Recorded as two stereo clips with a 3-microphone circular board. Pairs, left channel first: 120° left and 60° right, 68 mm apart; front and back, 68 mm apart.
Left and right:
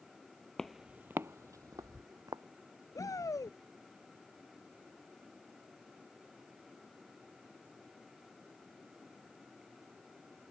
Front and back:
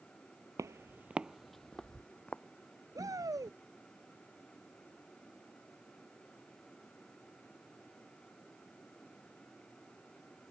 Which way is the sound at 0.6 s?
160° right.